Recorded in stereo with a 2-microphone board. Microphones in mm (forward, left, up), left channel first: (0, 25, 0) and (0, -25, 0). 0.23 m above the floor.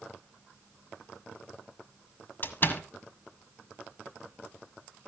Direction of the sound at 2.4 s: 40° left (ahead or behind).